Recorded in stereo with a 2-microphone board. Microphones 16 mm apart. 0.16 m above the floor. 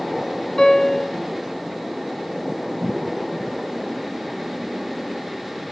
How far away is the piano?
About 1.2 m.